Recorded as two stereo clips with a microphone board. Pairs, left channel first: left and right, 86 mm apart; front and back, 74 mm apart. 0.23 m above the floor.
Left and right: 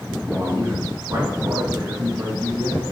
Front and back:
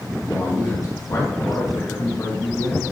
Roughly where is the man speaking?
Ahead right.